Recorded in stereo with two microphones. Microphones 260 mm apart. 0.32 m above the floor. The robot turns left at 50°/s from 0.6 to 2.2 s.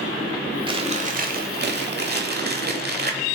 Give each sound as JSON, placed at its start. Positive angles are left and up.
{"t": 0.7, "sound": "chewing", "azimuth_deg": -30, "distance_m": 1.3}